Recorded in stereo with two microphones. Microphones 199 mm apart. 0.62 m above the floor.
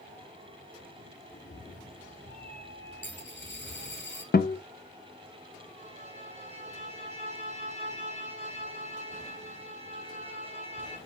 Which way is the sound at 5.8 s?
30° right (ahead or behind).